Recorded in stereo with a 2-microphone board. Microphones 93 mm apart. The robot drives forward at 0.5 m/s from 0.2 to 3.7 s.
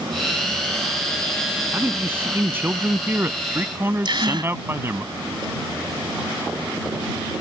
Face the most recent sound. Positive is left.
turn(degrees=-55)  # may be behind; listen again after turning